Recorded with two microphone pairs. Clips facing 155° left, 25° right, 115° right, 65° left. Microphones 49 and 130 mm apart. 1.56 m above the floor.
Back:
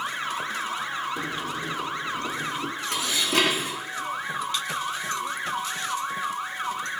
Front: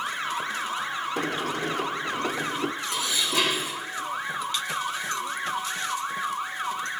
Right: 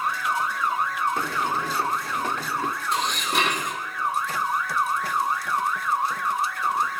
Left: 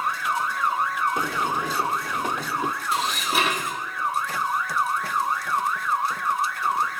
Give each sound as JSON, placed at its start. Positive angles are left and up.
{"t": 1.2, "sound": "a sliding door", "azimuth_deg": -5, "distance_m": 0.6}
{"t": 2.9, "sound": "dishes clattering", "azimuth_deg": 150, "distance_m": 1.9}